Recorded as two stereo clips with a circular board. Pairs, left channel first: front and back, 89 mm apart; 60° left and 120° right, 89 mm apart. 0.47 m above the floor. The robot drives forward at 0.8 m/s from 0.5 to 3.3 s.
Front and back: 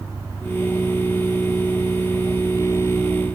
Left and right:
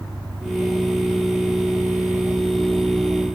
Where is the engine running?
115° right; by 3.4 s 125° right.